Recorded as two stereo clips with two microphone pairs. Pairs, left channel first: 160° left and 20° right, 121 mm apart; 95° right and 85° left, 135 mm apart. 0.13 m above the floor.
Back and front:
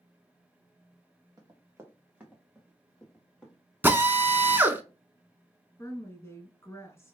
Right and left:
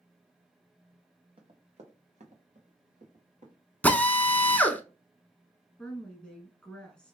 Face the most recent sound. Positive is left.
turn(degrees=-170)